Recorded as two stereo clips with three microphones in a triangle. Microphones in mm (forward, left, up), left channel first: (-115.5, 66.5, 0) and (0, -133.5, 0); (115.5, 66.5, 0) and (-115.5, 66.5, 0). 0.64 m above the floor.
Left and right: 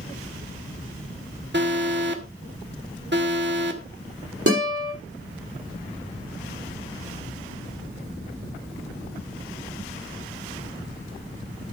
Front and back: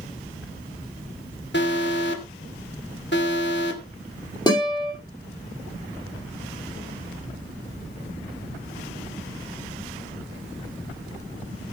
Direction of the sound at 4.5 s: 70° right.